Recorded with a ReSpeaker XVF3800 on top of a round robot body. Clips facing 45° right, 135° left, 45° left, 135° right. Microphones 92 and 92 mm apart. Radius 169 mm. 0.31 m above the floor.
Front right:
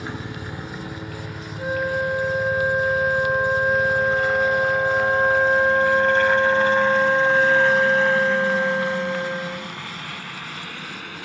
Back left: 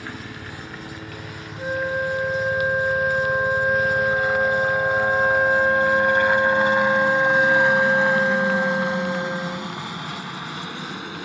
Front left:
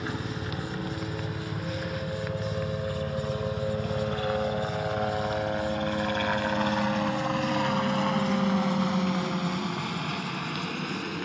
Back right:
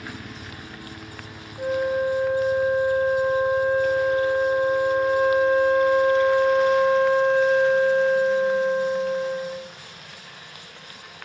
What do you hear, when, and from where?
0.0 s a helicopter: 10° left; by 11.3 s 65° left
1.6 s a flute: 130° right